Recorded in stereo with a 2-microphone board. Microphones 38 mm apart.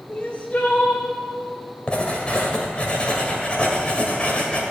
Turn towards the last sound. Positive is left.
turn(degrees=30)  # may be behind; listen again after turning